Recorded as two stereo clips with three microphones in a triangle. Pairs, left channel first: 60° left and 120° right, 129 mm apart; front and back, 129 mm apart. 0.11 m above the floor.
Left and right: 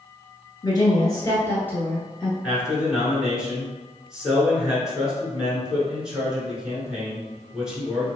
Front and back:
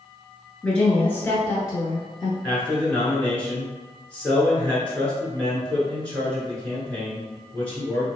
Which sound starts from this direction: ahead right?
A man speaking, at 2.4 s.